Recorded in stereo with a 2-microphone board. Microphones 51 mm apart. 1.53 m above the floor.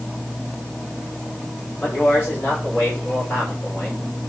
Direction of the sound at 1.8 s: 40° left (ahead or behind).